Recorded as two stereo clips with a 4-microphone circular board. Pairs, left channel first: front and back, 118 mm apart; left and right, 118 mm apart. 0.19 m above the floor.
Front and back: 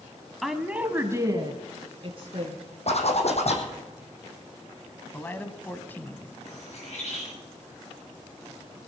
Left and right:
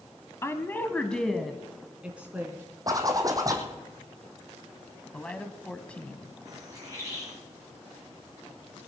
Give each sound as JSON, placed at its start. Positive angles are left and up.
{"t": 0.4, "sound": "a woman speaking", "azimuth_deg": 90, "distance_m": 1.0}
{"t": 2.9, "sound": "a zipper", "azimuth_deg": -30, "distance_m": 2.5}
{"t": 5.1, "sound": "a man speaking", "azimuth_deg": 30, "distance_m": 1.1}
{"t": 6.5, "sound": "a bird", "azimuth_deg": -30, "distance_m": 5.5}